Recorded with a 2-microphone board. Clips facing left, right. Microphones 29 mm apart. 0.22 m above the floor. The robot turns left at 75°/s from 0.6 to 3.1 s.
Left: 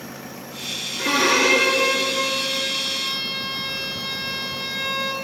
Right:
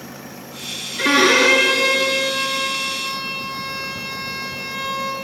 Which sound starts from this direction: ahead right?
A violin, at 1.0 s.